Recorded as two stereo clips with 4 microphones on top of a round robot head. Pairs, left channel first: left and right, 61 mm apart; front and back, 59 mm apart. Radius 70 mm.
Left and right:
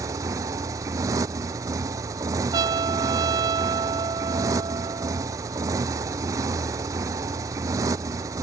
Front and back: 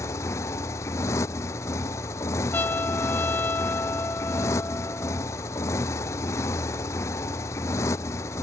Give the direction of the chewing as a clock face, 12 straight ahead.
I don't hear chewing.